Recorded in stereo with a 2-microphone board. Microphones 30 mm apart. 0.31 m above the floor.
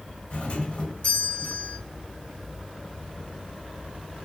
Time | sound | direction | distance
0.3 | a doorbell | 60° left (ahead or behind) | 3 m